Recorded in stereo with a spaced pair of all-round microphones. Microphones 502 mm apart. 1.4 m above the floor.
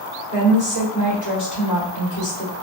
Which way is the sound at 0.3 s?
35° left (ahead or behind).